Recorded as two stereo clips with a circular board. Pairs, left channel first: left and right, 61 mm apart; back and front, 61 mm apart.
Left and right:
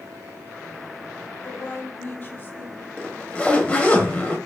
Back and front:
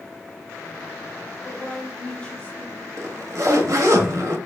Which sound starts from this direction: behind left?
A woman speaking, at 1.4 s.